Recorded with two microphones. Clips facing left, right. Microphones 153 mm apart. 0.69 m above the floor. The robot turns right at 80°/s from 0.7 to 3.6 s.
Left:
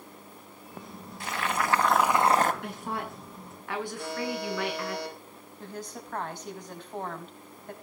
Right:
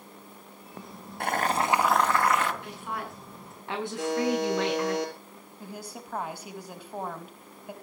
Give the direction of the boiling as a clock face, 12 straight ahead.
2 o'clock.